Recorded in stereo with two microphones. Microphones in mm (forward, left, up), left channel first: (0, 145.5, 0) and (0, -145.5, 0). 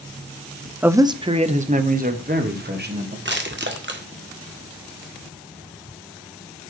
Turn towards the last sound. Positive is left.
turn(degrees=-40)  # may be behind; listen again after turning